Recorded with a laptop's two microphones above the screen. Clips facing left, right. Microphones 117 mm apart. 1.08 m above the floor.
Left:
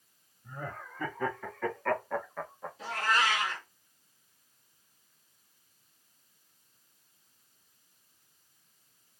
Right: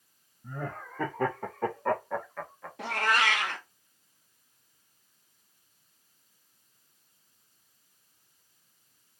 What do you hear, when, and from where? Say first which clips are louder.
0.4 s laughter: right 3 dB; 75° right (ahead or behind), 1.5 m; by 2.7 s 20° left (ahead or behind), 1.2 m
2.8 s a cat meowing: right 2 dB; 65° right (ahead or behind), 0.7 m